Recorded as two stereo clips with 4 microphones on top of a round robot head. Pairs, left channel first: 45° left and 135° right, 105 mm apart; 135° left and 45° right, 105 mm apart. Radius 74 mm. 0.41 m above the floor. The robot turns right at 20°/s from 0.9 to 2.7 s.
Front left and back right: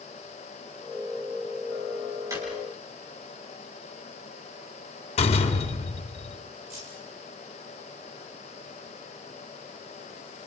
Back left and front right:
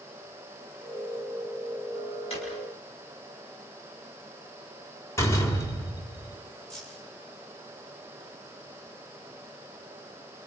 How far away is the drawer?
About 6.5 m.